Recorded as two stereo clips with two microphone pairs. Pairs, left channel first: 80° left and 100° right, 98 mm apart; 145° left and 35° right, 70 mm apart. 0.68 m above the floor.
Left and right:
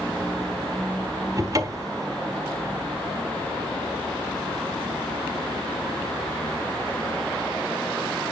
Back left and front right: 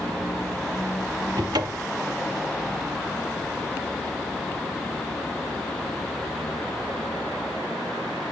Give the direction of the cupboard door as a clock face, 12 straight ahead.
1 o'clock.